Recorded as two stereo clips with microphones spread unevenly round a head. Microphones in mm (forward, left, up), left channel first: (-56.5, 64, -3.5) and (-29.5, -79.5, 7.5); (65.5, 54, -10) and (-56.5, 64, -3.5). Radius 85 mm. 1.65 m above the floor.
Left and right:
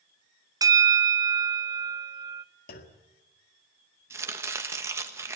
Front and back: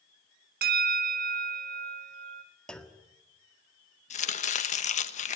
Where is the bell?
145° right, 0.9 m.